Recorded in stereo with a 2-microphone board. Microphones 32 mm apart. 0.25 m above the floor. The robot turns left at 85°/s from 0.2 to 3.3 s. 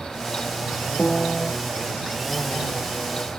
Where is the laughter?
I don't hear laughter.